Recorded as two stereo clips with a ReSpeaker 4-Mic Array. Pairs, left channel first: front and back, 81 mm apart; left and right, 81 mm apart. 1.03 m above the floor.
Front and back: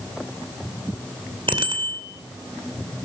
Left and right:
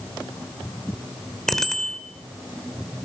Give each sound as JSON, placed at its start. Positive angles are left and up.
{"t": 1.5, "sound": "a bicycle bell", "azimuth_deg": 175, "distance_m": 2.5}